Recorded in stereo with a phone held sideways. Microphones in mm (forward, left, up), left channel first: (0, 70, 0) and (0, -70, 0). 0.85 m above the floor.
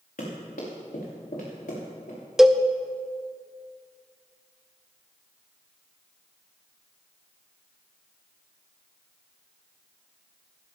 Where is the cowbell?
5° right (ahead or behind), 0.7 m.